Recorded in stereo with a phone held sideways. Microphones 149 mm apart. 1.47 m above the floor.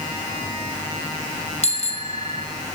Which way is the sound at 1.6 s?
50° left (ahead or behind).